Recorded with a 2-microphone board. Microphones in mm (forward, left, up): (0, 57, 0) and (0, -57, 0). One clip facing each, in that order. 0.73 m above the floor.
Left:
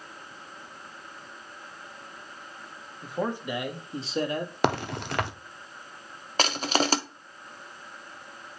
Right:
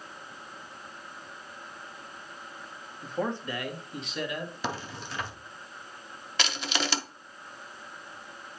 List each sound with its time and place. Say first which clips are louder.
3.0 s a man speaking: left 1 dB; centre (ahead or behind), 1.1 m; by 4.5 s 40° left (ahead or behind), 1.4 m
4.6 s a crack: left 9 dB; 65° left (ahead or behind), 0.7 m
6.4 s crushing: left 6 dB; 40° left (ahead or behind), 0.7 m